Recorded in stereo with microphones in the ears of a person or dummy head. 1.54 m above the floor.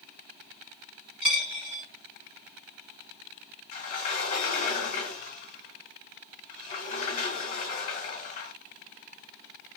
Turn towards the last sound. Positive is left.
turn(degrees=45)  # may be behind; listen again after turning